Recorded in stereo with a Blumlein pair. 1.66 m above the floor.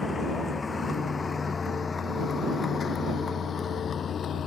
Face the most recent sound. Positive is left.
turn(degrees=25)